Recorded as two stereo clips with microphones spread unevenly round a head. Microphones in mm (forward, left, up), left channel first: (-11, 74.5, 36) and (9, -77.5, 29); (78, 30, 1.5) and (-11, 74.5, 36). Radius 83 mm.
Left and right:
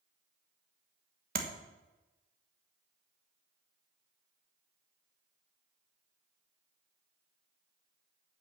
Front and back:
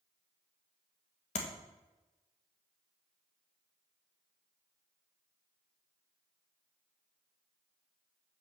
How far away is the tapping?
About 1.3 m.